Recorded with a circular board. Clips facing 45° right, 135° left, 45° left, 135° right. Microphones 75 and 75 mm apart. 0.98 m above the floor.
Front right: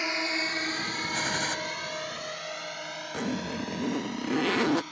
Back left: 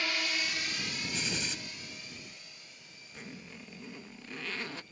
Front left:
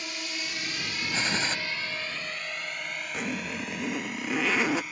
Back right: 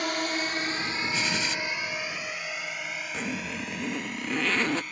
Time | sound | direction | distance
0.0 | a drone | 110° right | ?
1.1 | a gunshot | 10° right | ?
3.1 | a zipper | 40° right | ?